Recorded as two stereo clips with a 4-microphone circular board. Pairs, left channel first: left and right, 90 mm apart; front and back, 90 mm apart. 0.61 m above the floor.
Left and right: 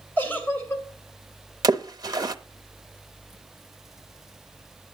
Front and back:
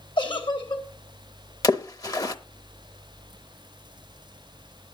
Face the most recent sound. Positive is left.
turn(degrees=-45)